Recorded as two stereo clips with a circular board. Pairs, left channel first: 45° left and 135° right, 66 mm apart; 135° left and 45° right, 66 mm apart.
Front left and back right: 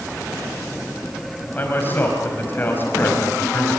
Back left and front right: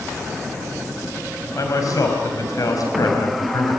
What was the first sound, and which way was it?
A man speaking, 105° left.